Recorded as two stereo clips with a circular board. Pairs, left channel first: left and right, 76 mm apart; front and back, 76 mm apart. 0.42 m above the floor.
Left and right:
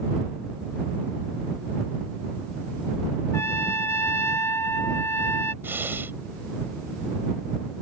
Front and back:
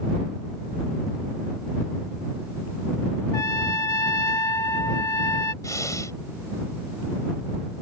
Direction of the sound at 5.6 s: 35° right.